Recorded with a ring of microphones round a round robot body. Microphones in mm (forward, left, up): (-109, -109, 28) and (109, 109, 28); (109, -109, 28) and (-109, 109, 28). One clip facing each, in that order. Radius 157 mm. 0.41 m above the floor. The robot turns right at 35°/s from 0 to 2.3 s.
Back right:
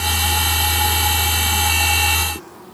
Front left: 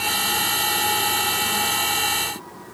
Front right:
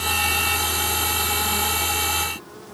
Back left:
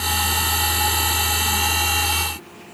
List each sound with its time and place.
Only background noise.